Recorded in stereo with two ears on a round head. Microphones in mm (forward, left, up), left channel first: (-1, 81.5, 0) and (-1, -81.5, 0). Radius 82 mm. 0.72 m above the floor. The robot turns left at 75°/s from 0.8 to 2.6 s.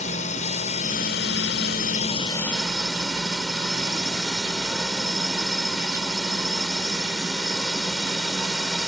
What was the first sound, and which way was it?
A drone, 135° left.